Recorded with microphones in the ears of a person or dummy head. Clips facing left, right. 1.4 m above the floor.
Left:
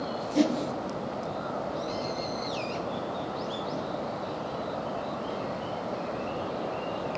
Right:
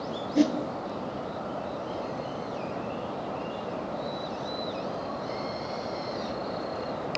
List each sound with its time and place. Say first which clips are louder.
0.3 s a whoosh: right 1 dB; 5° right (ahead or behind), 0.9 m